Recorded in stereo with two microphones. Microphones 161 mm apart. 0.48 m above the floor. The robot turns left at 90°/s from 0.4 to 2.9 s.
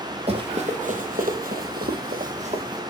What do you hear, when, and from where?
0.3 s running footsteps: 40° right (ahead or behind), 1.3 m; by 2.8 s 20° right (ahead or behind), 1.9 m